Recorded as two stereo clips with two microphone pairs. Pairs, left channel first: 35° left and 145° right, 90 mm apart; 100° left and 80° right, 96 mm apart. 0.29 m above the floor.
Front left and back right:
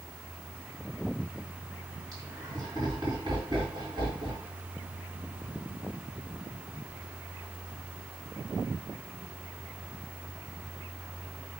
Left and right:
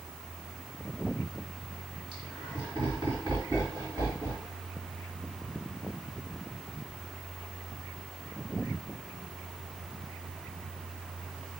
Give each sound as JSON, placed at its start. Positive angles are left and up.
{"t": 2.1, "sound": "laughter", "azimuth_deg": -105, "distance_m": 2.5}